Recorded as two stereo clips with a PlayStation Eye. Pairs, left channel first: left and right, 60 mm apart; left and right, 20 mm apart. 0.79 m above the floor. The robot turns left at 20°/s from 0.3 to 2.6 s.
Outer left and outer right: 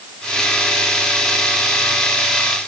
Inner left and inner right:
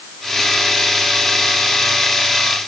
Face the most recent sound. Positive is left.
No sound to turn to.